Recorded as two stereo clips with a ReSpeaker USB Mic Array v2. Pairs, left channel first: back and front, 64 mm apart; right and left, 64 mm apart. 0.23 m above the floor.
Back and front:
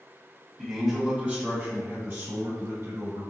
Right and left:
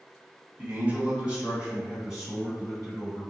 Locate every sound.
0.6 s a man speaking: 100° left, 1.7 m; by 3.2 s straight ahead, 4 m